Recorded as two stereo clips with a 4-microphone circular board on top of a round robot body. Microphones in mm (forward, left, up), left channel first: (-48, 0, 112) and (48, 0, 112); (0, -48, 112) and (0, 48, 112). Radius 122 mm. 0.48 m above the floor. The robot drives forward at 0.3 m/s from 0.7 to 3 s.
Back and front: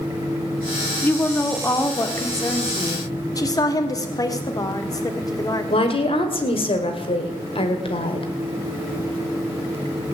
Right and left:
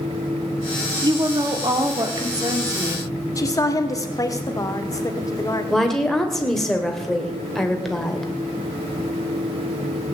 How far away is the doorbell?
I don't hear a doorbell.